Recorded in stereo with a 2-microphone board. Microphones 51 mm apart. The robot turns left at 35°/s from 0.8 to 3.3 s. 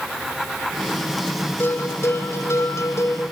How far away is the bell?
About 2.5 m.